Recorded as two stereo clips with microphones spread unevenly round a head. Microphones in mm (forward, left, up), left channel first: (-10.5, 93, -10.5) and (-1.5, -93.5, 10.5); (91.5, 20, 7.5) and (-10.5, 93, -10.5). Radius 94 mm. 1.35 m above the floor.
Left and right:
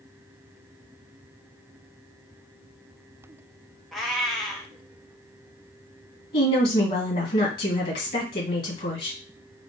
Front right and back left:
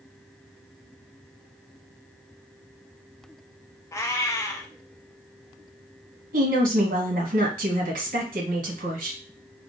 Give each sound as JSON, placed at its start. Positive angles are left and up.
{"t": 3.9, "sound": "a cat meowing", "azimuth_deg": -5, "distance_m": 0.6}
{"t": 6.3, "sound": "a woman speaking", "azimuth_deg": 140, "distance_m": 1.4}